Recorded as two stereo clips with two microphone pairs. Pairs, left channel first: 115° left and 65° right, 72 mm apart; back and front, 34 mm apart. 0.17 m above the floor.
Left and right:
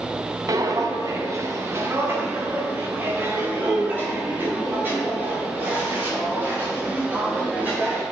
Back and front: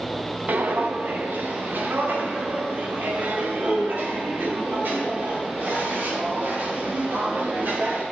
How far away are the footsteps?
About 1.7 m.